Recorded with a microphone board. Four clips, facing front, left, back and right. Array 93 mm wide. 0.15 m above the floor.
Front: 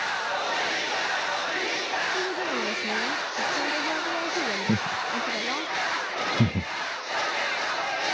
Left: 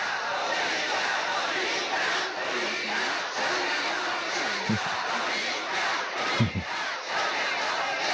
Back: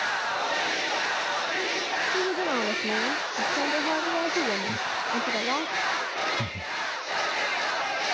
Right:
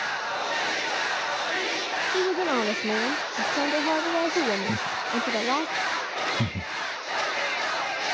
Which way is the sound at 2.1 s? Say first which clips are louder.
Right 7 dB, back 2 dB; 110° right.